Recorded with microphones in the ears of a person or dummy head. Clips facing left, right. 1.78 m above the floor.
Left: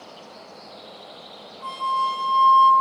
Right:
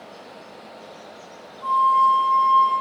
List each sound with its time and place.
1.6 s a flute: 20° left (ahead or behind), 0.9 m